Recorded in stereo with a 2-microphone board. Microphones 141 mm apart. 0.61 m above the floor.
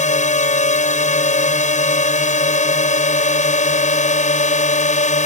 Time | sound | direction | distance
0.0 | a drone | 60° left (ahead or behind) | ?